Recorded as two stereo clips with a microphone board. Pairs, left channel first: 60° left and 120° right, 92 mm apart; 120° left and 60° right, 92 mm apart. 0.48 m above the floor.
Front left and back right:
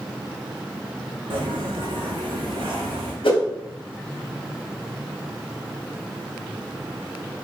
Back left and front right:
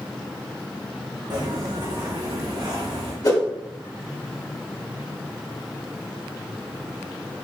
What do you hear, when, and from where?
1.3 s footsteps: 100° right, 1.6 m
3.2 s a whoosh: 75° left, 1.7 m